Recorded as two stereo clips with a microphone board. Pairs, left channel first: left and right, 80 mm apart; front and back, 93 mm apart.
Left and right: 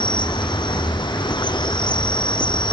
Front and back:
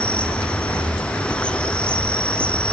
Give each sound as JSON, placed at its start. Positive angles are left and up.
{"t": 0.0, "sound": "an insect", "azimuth_deg": 80, "distance_m": 1.2}